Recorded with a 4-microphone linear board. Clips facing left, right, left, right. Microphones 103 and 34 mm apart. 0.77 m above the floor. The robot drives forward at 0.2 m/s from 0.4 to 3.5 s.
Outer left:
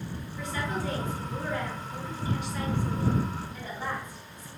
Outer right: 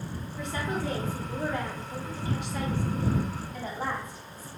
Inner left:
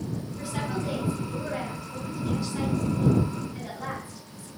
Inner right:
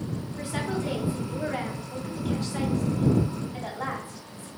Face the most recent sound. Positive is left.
turn(degrees=-70)  # may be behind; listen again after turning